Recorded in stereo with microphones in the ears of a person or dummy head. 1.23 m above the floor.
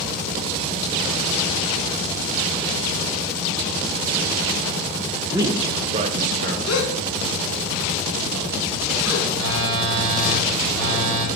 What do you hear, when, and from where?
5.3 s a man speaking: 10° right (ahead or behind), 0.7 m; by 6.6 s 45° right (ahead or behind), 0.7 m
6.7 s a gasp: 70° left (ahead or behind), 1.6 m
9.3 s a phone buzzing: 80° right, 2 m